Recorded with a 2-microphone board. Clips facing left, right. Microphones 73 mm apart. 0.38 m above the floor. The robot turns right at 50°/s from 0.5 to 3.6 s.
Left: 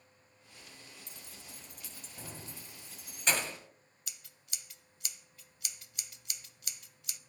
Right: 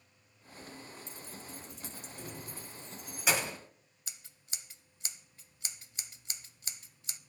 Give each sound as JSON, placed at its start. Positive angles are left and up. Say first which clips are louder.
{"t": 1.1, "sound": "keys jangling", "louder": "right 6 dB", "side_deg": 65, "distance_m": 1.9}
{"t": 4.1, "sound": "scissors", "louder": "right 1 dB", "side_deg": -30, "distance_m": 0.5}